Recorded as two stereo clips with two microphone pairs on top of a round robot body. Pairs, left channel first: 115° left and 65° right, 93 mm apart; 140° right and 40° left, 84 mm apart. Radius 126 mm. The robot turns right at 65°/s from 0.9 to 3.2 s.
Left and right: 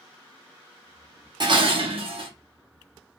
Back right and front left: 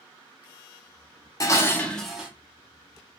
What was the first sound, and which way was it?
Dishes clattering, 100° right.